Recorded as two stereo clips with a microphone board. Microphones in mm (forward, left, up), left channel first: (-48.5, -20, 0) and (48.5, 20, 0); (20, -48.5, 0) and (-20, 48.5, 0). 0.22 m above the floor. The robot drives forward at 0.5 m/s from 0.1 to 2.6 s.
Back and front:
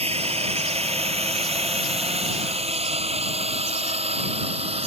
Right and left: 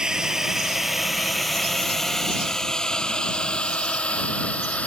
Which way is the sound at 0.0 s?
30° left.